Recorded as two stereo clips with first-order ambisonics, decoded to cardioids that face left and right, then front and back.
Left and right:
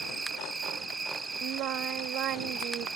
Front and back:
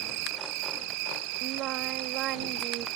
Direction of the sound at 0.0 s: 170° right.